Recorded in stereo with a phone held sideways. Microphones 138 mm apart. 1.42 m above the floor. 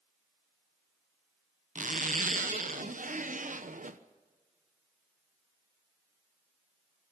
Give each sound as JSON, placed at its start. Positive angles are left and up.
{"t": 1.8, "sound": "a zipper", "side_deg": -70, "distance_m": 0.9}